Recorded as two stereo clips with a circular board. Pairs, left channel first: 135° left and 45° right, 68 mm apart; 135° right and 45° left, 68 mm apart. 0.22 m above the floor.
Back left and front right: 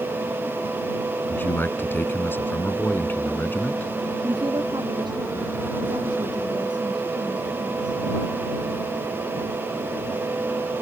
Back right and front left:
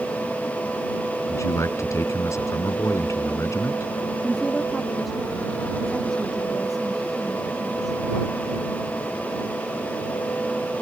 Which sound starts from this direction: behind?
A man speaking, at 1.3 s.